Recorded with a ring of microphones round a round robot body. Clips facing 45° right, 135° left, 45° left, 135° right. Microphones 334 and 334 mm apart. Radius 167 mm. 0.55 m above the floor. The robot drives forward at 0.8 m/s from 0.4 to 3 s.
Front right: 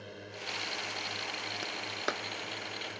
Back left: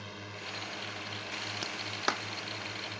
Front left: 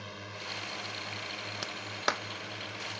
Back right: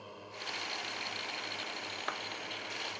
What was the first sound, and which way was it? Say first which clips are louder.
A drone: front right 1 dB, front left 2 dB; 75° left.